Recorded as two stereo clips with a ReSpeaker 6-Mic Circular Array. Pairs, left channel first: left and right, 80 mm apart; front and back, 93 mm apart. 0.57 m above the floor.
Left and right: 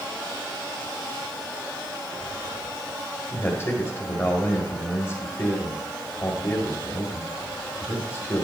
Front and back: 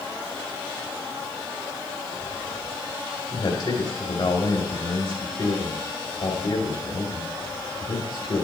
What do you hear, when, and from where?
3.3 s a man speaking: 35° left, 2.5 m